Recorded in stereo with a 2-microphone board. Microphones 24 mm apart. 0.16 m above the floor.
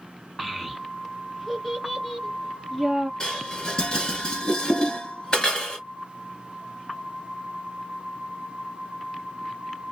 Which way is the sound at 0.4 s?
Centre (ahead or behind).